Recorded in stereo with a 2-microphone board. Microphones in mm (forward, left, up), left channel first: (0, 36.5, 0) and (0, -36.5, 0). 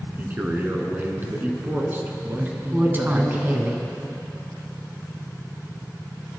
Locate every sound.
0.2 s a man speaking: 30° right (ahead or behind), 1.7 m
2.4 s a woman speaking: 25° right (ahead or behind), 1.5 m